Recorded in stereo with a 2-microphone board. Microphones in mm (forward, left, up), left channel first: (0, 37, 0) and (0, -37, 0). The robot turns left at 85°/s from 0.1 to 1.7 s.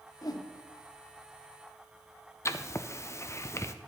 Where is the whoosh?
50° left (ahead or behind), 0.8 m; by 0.5 s 70° left (ahead or behind), 0.8 m.